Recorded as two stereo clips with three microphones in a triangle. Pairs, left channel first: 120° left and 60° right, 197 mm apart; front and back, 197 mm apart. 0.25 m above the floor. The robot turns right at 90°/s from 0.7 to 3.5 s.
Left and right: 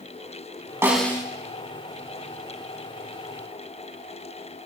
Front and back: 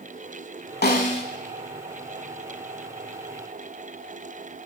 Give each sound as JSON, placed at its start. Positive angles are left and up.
{"t": 0.8, "sound": "a snare drum", "azimuth_deg": 15, "distance_m": 0.8}